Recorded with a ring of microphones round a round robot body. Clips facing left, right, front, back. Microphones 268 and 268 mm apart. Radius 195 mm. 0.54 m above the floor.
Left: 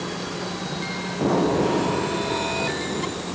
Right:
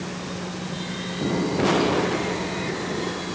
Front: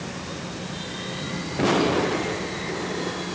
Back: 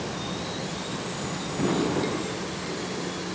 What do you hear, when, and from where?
Only background noise.